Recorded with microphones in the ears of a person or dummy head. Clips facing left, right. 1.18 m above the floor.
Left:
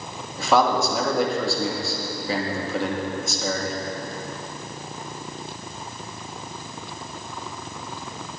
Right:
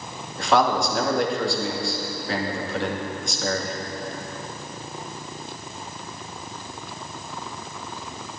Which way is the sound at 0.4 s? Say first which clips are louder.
Left 1 dB; 5° left (ahead or behind).